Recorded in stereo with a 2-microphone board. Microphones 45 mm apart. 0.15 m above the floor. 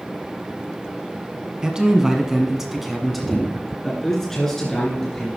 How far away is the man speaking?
About 1.5 m.